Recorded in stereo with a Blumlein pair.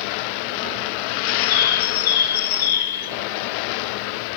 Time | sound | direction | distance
1.3 | a bird | 55° left | 0.6 m